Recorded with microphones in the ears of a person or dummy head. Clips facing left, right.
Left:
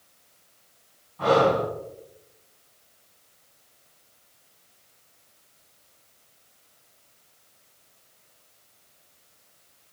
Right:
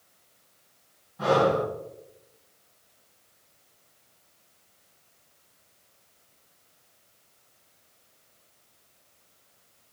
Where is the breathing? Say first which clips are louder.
Left 2 dB; 5° right (ahead or behind), 3 m.